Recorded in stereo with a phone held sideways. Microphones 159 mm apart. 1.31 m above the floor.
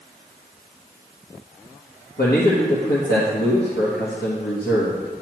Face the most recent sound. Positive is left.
turn(degrees=80)